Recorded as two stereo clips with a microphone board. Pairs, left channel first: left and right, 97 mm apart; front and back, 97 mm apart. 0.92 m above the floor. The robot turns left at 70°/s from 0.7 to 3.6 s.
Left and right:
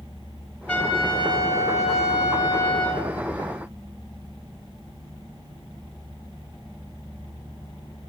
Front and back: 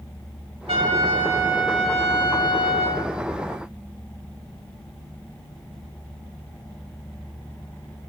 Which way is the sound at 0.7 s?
165° left.